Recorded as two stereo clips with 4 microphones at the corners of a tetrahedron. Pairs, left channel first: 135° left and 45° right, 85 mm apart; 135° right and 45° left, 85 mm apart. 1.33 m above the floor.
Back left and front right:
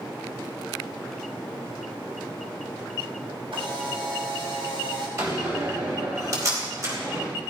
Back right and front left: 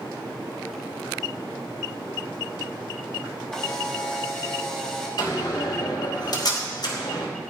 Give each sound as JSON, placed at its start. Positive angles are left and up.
{"t": 3.5, "sound": "a camera shutter", "azimuth_deg": -50, "distance_m": 3.0}
{"t": 5.2, "sound": "a door slam", "azimuth_deg": -95, "distance_m": 4.5}